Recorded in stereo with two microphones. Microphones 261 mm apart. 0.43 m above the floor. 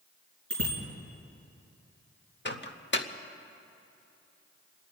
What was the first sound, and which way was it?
A bicycle bell, 60° left (ahead or behind).